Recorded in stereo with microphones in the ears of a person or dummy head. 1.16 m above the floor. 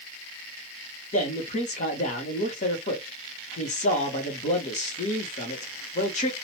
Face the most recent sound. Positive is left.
turn(degrees=35)  # may be behind; listen again after turning